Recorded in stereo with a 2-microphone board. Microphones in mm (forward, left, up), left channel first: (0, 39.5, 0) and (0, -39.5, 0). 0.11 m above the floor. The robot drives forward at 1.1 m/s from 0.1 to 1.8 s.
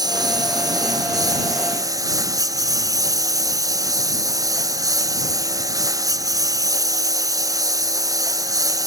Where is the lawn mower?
55° right (ahead or behind); by 8.9 s 45° right (ahead or behind).